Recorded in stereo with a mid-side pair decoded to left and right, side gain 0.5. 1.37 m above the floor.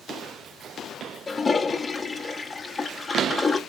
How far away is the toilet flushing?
About 0.7 m.